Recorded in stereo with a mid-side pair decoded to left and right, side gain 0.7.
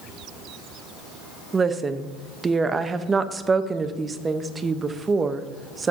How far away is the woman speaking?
About 0.9 m.